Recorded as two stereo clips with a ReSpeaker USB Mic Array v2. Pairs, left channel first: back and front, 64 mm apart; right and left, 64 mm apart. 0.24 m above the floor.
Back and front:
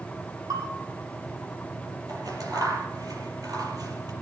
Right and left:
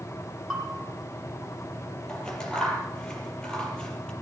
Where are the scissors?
15° right, 6.5 m.